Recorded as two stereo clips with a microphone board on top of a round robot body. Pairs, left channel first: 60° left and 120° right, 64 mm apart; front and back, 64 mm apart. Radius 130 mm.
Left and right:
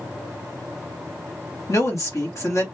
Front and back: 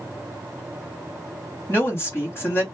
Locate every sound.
1.7 s a woman speaking: 40° left, 1.5 m